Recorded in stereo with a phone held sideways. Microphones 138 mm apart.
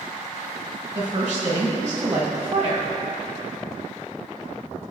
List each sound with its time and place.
0.9 s a woman speaking: 55° right (ahead or behind), 1.8 m